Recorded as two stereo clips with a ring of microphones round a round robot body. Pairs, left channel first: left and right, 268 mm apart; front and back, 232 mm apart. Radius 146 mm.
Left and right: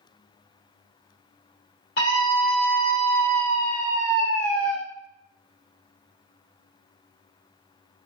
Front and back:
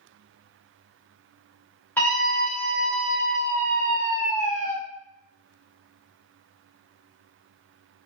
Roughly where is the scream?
Left.